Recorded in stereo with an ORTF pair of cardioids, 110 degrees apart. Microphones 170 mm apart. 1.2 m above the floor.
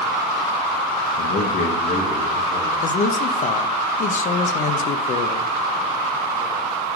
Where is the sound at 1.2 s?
65° left, 0.8 m; by 2.7 s 30° left, 2.5 m.